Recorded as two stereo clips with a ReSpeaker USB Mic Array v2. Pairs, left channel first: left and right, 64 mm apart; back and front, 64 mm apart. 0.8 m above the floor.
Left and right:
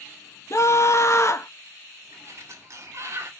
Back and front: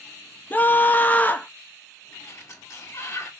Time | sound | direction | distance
0.5 | a scream | 120° left | 0.7 m
2.1 | a sliding door | 135° right | 1.3 m